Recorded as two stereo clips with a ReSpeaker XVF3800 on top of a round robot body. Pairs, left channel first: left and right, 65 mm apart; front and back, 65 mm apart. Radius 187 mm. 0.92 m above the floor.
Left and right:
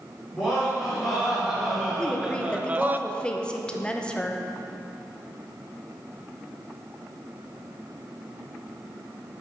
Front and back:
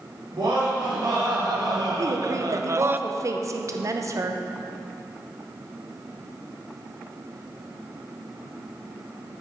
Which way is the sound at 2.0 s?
160° left.